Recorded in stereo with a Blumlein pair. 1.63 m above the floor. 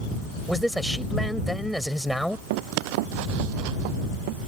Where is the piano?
I don't hear a piano.